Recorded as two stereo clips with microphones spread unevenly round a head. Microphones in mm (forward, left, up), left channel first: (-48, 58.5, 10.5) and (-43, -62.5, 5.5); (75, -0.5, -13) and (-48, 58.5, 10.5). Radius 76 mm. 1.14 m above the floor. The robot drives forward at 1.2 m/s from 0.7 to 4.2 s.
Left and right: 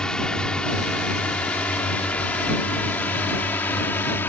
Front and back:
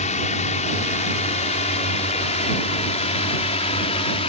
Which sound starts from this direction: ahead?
A drone, at 0.0 s.